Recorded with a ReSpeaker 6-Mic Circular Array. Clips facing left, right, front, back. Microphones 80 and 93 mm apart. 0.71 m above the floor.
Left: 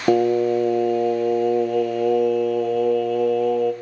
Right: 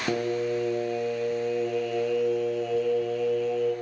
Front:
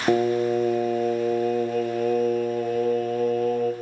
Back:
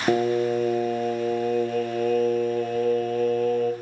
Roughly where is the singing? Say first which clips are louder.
Left 10 dB, front 1 dB; left.